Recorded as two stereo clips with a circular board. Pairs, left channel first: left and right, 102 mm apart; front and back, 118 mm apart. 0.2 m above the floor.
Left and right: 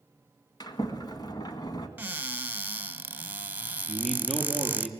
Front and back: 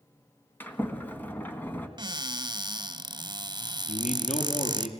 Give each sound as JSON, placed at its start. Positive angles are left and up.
{"t": 0.6, "sound": "a sliding door", "azimuth_deg": 65, "distance_m": 1.8}
{"t": 2.0, "sound": "a cupboard door", "azimuth_deg": -155, "distance_m": 1.0}
{"t": 3.9, "sound": "a man speaking", "azimuth_deg": 0, "distance_m": 5.0}